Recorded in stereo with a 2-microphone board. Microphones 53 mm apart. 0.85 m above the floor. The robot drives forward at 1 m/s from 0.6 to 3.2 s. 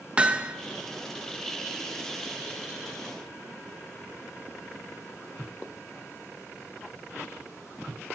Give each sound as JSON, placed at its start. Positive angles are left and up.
{"t": 0.2, "sound": "hammering", "side_deg": -20, "distance_m": 0.5}